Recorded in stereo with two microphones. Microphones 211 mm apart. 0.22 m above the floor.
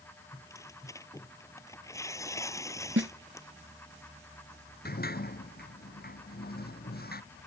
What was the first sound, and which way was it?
Tearing paper, 15° left (ahead or behind).